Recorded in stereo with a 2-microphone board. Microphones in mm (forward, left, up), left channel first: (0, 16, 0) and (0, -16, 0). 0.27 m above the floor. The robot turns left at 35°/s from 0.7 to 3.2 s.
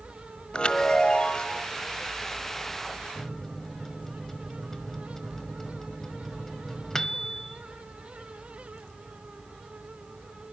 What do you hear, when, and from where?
0.5 s a chime: 90° left, 1.2 m; by 1.7 s 55° left, 1.2 m
3.1 s a microwave: 15° left (ahead or behind), 1.1 m